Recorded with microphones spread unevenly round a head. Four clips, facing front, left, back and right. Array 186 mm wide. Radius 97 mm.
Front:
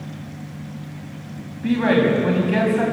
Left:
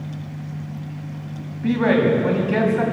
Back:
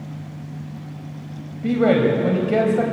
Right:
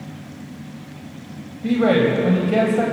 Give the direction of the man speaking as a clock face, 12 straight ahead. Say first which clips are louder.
Right 1 dB, back 1 dB; 5 o'clock.